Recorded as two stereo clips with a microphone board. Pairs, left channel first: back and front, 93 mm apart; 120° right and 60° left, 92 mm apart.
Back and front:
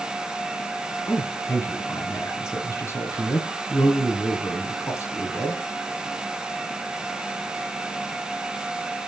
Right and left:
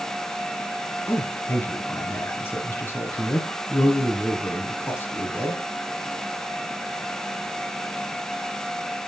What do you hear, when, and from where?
1.1 s a man speaking: 160° right, 1.6 m